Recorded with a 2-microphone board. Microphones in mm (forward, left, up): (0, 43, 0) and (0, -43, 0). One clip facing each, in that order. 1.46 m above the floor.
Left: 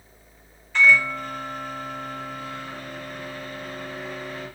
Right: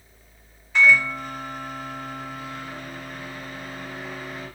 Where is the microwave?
10° right (ahead or behind), 2.5 m.